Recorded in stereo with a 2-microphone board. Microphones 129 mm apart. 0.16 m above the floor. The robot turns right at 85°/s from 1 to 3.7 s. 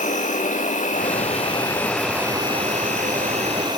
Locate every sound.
0.0 s an insect: 95° left, 2.0 m; by 3.8 s 35° right, 2.0 m